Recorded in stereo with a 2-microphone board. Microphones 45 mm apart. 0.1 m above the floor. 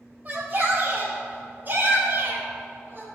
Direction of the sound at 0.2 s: 30° right (ahead or behind).